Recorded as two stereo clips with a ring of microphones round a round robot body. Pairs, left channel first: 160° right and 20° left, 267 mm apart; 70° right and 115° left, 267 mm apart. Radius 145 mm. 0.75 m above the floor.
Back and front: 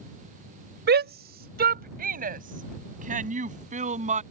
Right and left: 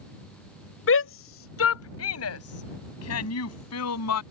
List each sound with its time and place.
0.9 s a shout: 30° right; by 4.2 s 40° right